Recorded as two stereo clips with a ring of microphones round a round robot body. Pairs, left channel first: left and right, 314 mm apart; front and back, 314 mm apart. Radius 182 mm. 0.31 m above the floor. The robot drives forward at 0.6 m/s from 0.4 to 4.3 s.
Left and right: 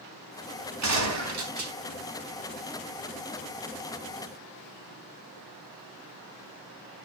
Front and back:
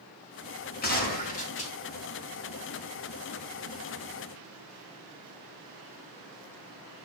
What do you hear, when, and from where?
0.8 s a gunshot: 60° right, 3.5 m; by 1.7 s 70° right, 3 m